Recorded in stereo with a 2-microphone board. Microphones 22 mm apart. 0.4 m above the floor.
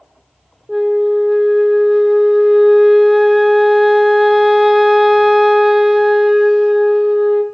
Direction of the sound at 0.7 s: 10° right (ahead or behind).